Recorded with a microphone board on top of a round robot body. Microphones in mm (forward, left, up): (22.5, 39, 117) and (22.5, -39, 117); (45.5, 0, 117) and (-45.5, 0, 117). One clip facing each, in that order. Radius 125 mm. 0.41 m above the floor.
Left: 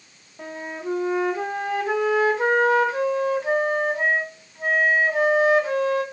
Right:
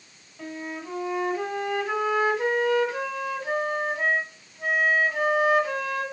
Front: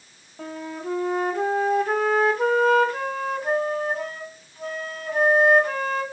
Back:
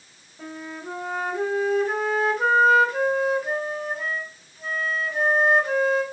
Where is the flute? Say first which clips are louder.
Left 3 dB, front 3 dB; 30° left, 1.7 m.